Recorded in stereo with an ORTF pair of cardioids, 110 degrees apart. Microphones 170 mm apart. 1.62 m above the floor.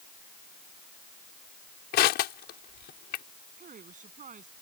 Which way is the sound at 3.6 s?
45° right.